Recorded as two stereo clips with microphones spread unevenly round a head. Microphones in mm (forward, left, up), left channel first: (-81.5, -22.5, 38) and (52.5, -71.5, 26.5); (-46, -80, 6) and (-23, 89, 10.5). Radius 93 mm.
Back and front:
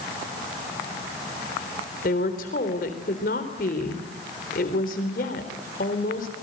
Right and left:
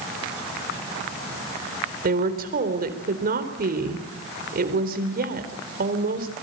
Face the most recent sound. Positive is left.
turn(degrees=120)